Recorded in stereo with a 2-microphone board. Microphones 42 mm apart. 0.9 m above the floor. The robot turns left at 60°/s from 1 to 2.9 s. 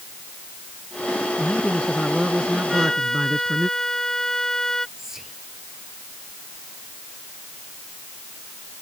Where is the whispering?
10° right (ahead or behind).